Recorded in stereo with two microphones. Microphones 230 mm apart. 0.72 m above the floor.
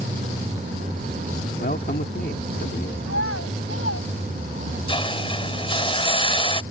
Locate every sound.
1.6 s a man speaking: 45° left (ahead or behind)
3.0 s a child speaking: 80° left
4.9 s a hiss: 25° left (ahead or behind)